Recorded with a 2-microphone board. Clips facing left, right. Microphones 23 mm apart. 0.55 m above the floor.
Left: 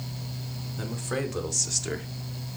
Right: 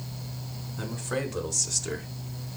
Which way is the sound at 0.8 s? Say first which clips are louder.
Even; centre (ahead or behind).